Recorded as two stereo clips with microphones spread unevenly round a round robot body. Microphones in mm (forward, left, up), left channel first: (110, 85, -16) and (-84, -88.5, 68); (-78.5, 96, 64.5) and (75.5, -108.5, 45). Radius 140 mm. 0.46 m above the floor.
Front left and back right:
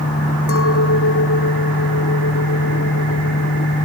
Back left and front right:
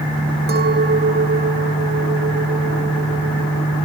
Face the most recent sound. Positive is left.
turn(degrees=5)